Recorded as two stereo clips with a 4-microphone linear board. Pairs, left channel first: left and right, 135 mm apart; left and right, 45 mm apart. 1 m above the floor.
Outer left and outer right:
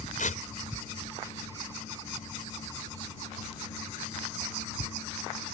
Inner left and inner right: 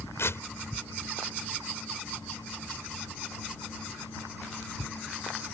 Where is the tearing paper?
70° left (ahead or behind).